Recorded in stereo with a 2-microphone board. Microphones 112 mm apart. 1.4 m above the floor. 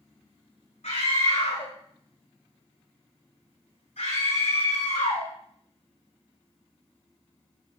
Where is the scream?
80° left, 5.5 m.